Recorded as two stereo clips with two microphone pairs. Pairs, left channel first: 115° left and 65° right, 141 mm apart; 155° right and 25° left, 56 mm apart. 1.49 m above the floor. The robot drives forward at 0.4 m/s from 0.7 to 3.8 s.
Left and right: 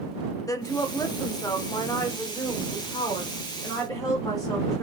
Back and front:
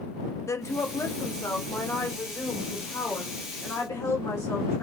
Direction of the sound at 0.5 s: Straight behind.